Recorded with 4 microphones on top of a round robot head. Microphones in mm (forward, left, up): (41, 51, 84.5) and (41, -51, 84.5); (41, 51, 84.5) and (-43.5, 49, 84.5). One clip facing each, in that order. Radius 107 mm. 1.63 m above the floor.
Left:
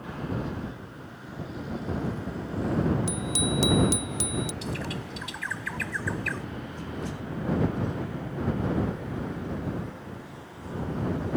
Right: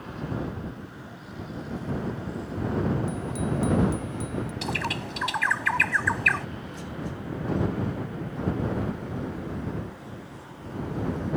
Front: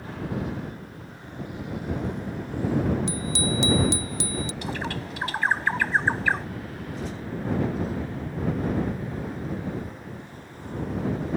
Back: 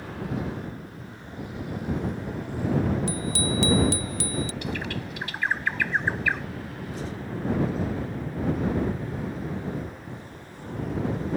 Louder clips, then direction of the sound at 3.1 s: Even, even; 70° left.